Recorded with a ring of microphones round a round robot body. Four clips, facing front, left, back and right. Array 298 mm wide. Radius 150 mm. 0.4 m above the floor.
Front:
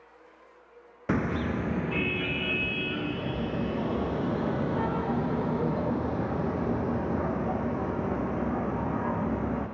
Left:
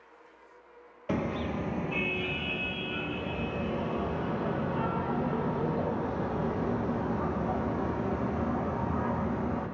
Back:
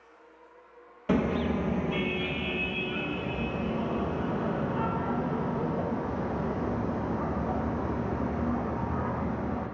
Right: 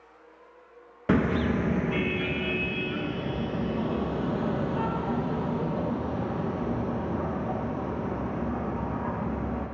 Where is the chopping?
I don't hear chopping.